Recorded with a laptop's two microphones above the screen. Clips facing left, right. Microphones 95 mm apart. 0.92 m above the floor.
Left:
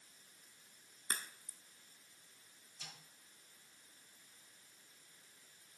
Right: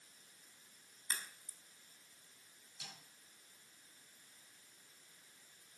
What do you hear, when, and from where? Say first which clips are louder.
1.1 s a crack: left 2 dB; 45° left (ahead or behind), 0.7 m
2.8 s a snare drum: right 1 dB; 75° right (ahead or behind), 5 m